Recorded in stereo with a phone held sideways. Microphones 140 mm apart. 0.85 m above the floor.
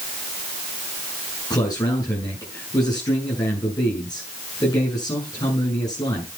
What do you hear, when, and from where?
1.5 s a man speaking: 30° left (ahead or behind), 8.5 m